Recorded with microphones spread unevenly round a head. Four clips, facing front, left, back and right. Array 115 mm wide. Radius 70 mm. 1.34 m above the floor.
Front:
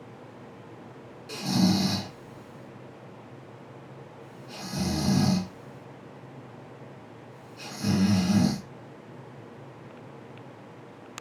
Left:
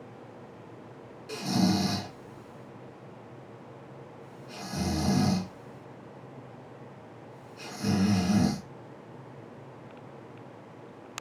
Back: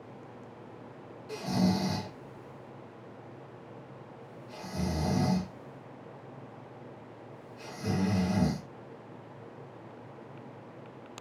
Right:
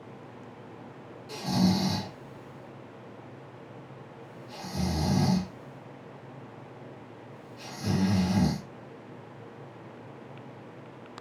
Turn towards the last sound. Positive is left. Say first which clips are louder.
# even, front 4 dB
turn(degrees=25)